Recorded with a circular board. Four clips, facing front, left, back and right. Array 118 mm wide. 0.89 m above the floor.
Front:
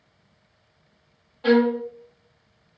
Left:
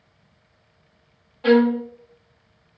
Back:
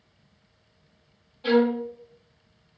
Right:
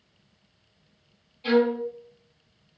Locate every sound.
1.4 s a violin: 60° left, 0.7 m